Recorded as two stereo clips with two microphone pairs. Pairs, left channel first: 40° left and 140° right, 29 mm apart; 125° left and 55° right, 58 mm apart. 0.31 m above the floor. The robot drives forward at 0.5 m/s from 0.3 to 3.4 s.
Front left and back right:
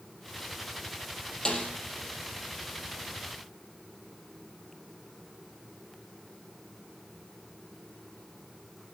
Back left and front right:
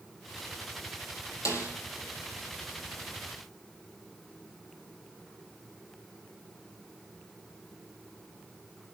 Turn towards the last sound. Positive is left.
turn(degrees=120)